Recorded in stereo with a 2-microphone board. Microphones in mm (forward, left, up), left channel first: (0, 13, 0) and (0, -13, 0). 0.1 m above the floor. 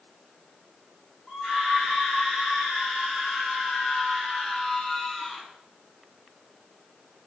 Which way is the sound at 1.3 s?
35° left (ahead or behind).